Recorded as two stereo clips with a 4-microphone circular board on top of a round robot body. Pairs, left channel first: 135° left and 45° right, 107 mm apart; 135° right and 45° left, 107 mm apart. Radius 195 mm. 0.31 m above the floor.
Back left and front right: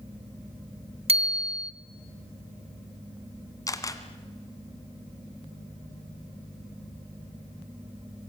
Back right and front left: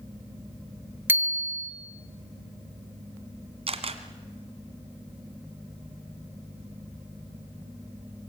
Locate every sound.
1.1 s a bicycle bell: 25° right, 2 m
3.7 s a camera shutter: 75° left, 1.9 m